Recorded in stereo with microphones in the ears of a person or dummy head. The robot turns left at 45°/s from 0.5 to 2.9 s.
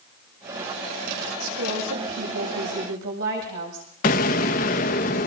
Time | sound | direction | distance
1.4 | a woman speaking | 45° right | 8.5 m
4.0 | an explosion | 35° left (ahead or behind) | 1.2 m